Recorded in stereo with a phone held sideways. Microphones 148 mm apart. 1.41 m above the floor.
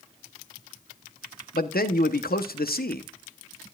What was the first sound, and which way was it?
A man speaking, 85° left.